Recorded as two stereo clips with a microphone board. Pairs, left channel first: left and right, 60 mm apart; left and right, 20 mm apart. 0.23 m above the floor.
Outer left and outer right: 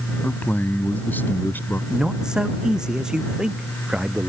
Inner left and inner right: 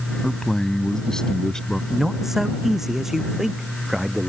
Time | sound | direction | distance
0.2 | a man speaking | 30° left (ahead or behind) | ?
1.9 | a man speaking | 10° right (ahead or behind) | ?